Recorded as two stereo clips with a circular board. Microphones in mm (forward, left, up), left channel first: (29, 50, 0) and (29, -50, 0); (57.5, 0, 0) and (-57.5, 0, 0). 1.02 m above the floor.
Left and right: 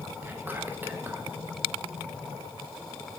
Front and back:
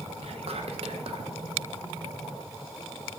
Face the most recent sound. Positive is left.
turn(degrees=-160)